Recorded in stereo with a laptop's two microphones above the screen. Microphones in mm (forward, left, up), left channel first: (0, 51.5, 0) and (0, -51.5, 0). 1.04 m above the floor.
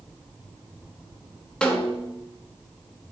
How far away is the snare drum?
About 2 m.